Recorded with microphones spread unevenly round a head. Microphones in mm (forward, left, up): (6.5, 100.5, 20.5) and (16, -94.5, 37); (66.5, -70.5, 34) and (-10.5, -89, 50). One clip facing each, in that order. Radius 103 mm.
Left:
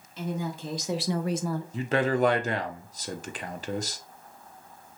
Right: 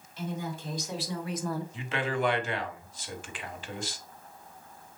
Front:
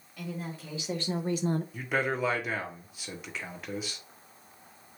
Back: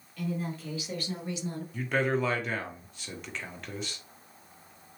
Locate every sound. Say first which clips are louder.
0.2 s a woman speaking: left 3 dB, back 4 dB; 95° left, 2 m; by 1.6 s 15° right, 0.5 m
1.7 s a man speaking: left 12 dB, back 2 dB; 85° left, 0.8 m